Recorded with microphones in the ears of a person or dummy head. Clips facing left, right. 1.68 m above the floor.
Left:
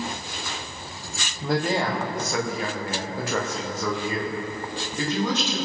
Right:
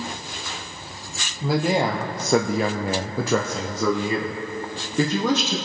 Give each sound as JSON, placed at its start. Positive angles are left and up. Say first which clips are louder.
{"t": 1.4, "sound": "a man speaking", "louder": "right 3 dB", "side_deg": -5, "distance_m": 1.1}